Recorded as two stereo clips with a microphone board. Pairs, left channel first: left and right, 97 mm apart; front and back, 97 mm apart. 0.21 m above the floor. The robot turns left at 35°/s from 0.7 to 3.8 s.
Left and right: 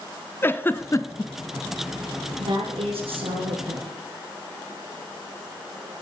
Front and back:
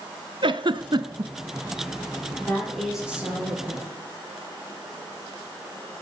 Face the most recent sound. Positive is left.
turn(degrees=-125)